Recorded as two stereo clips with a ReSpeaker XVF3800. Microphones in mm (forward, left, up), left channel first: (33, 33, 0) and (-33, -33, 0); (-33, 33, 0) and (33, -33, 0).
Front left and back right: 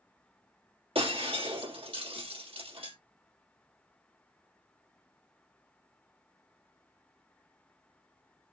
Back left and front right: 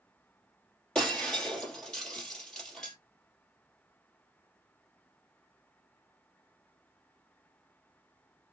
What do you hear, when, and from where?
0.9 s breaking glass: 140° right, 2.5 m